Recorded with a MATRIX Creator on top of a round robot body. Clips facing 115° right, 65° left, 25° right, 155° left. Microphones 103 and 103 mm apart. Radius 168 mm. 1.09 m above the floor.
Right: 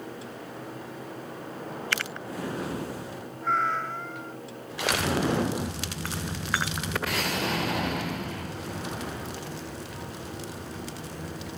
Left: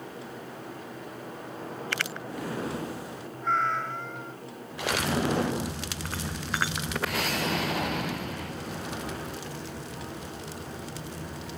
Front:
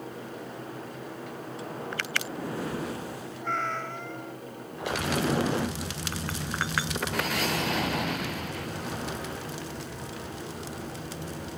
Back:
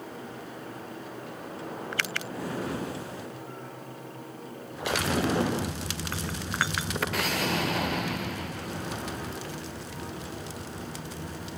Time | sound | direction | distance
3.4 | a cat meowing | 25° right | ?